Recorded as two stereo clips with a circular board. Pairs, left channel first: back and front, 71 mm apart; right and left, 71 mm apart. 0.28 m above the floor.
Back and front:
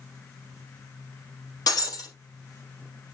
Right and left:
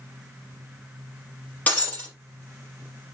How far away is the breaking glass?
About 4.5 m.